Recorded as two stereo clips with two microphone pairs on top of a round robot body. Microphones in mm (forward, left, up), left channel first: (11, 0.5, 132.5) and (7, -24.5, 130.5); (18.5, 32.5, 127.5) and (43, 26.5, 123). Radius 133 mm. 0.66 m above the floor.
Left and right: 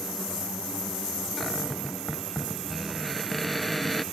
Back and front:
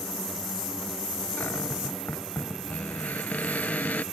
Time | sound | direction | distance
1.4 | a cupboard door | 170° left | ?